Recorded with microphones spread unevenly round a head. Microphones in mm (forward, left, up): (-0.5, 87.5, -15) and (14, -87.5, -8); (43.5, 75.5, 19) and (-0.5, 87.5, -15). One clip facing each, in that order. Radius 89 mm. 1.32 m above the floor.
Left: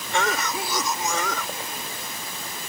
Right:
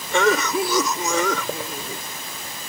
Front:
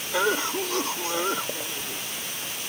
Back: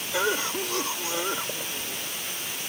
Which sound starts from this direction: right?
A cough, at 0.1 s.